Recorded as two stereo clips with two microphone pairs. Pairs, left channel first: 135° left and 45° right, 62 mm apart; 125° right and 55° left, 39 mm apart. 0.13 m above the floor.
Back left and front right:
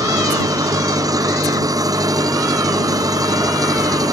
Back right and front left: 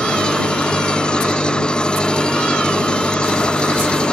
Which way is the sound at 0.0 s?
60° right.